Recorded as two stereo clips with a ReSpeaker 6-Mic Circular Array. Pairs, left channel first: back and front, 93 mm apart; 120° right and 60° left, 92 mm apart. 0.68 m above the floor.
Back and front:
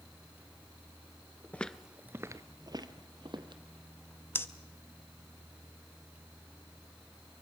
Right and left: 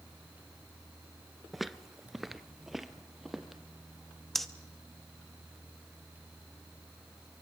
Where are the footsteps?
145° left, 0.6 m; by 3.6 s 30° right, 1.6 m.